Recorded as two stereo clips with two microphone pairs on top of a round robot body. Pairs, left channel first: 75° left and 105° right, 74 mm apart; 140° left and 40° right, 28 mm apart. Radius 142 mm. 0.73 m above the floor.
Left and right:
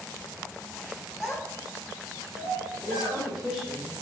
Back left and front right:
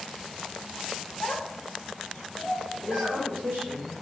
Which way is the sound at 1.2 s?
165° left.